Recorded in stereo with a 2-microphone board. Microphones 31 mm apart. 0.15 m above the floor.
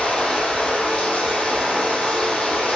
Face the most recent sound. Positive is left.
turn(degrees=35)  # may be behind; listen again after turning